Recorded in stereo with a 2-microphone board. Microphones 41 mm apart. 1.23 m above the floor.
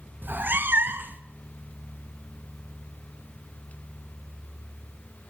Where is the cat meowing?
50° right (ahead or behind), 0.7 m.